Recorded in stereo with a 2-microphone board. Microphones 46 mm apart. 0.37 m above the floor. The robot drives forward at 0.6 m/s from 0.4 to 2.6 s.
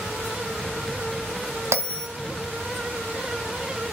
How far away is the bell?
About 1.8 m.